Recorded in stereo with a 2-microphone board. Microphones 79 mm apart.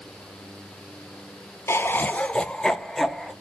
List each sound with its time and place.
1.7 s laughter: 35° left (ahead or behind), 0.7 m; by 3.3 s centre (ahead or behind), 1.6 m